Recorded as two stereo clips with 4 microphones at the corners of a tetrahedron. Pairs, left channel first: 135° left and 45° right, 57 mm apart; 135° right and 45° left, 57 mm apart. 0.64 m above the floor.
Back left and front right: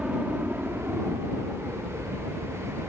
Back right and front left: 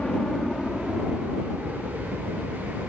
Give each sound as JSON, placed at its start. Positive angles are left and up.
{"t": 0.0, "sound": "a helicopter", "azimuth_deg": -95}